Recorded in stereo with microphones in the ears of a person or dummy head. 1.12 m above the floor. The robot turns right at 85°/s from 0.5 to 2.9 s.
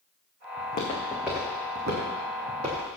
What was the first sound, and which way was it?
Footsteps, 55° left (ahead or behind).